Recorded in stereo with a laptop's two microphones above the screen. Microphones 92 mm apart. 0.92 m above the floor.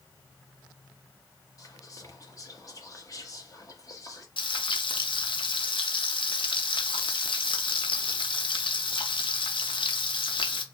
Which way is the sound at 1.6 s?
40° left (ahead or behind).